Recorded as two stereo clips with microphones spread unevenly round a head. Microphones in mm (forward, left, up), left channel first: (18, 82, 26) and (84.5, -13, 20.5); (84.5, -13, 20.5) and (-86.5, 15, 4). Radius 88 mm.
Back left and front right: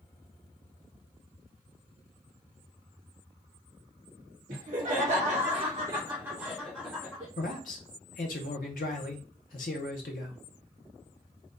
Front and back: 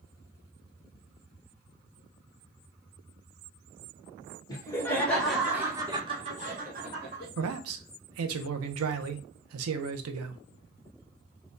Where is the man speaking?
170° left, 0.6 m.